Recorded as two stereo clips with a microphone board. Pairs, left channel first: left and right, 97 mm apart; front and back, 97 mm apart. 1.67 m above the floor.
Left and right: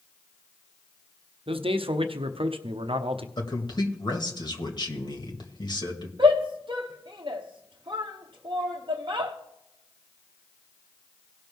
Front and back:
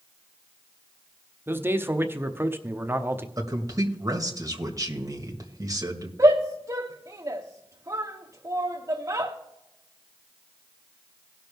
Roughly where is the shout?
Behind right.